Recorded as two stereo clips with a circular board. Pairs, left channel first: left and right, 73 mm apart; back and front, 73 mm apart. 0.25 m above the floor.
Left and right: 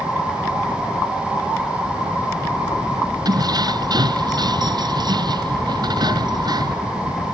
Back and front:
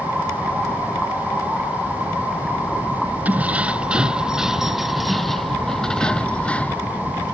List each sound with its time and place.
3.2 s keys jangling: 70° right; by 6.9 s 110° right